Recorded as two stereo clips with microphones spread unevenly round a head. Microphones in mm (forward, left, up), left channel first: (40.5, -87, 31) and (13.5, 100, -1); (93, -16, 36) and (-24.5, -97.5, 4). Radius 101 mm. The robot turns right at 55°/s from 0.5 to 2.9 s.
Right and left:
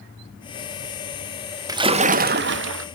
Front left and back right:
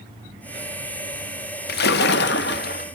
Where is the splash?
25° left, 1.0 m; by 2.9 s 90° left, 1.0 m.